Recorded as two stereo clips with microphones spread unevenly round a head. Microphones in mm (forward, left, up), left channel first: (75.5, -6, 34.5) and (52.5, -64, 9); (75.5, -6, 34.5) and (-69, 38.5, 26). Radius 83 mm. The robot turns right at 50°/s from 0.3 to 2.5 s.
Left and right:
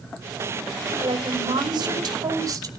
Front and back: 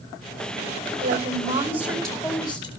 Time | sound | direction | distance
1.0 | a woman speaking | 155° right | 5 m